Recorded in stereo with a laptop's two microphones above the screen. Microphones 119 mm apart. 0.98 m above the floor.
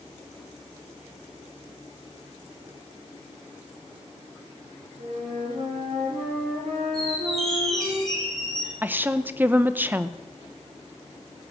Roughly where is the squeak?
Centre.